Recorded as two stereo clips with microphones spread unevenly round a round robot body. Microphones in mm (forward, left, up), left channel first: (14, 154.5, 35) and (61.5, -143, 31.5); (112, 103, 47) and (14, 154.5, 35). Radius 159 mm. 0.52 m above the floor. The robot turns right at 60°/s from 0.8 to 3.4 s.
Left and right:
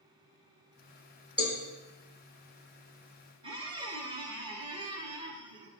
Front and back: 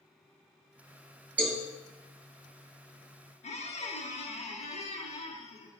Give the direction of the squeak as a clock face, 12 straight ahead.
12 o'clock.